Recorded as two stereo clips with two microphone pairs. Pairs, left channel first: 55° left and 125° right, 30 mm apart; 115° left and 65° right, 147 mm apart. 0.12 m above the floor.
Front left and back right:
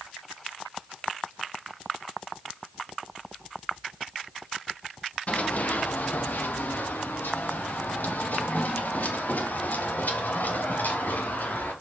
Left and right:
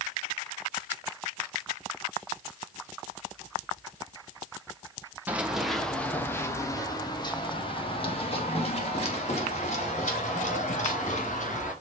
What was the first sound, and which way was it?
Running footsteps, 15° left.